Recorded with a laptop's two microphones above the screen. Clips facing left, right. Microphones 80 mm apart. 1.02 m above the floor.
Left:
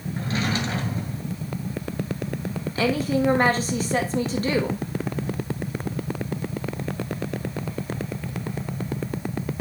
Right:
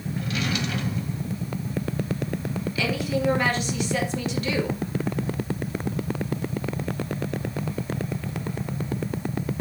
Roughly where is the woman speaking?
Left.